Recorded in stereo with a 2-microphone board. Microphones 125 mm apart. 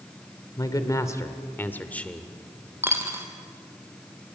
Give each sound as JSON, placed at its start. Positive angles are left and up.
{"t": 0.6, "sound": "a man speaking", "side_deg": 30, "distance_m": 1.4}
{"t": 2.8, "sound": "a dropped coin", "side_deg": -20, "distance_m": 2.5}